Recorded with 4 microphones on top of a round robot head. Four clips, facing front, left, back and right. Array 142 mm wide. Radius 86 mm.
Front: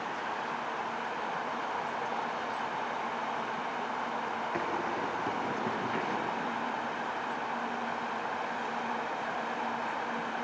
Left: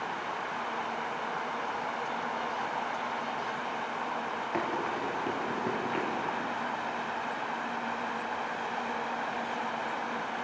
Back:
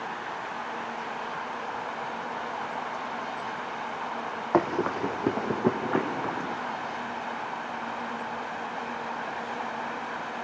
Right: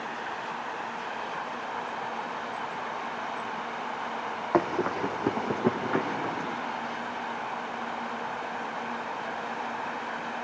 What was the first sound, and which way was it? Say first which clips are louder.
Running footsteps: right 7 dB, back 11 dB; 145° right.